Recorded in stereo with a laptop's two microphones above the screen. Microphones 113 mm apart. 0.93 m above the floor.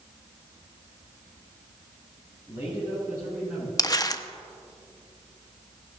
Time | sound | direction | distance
2.5 | a man speaking | 25° right (ahead or behind) | 5.5 m
3.8 | crumpling | 35° left (ahead or behind) | 0.7 m